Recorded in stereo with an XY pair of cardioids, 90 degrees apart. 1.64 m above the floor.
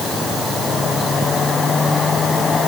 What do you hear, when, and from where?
Only background noise.